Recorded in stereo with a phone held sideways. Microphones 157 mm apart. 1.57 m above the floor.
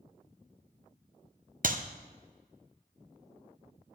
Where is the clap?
60° right (ahead or behind), 0.9 m.